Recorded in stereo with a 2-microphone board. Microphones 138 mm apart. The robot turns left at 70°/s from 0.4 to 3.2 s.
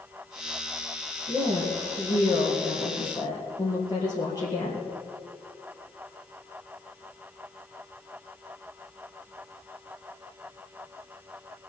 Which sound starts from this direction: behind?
A woman speaking, at 1.3 s.